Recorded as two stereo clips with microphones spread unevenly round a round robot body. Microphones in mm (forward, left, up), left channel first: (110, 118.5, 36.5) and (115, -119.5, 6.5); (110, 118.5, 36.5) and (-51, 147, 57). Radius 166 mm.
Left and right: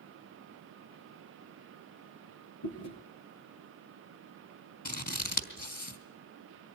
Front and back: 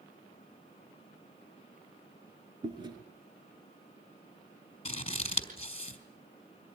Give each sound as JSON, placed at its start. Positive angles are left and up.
{"t": 2.6, "sound": "chewing", "azimuth_deg": 110, "distance_m": 5.0}
{"t": 4.8, "sound": "scissors", "azimuth_deg": 40, "distance_m": 4.0}